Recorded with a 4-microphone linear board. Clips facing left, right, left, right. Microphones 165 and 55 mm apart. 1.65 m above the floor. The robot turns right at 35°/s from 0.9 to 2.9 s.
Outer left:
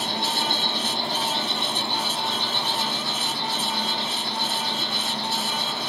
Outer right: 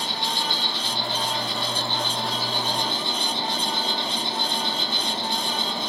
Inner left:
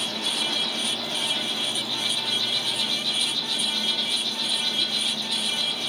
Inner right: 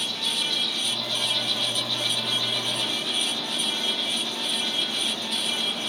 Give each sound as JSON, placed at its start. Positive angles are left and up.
{"t": 0.0, "sound": "an insect", "azimuth_deg": 135, "distance_m": 3.0}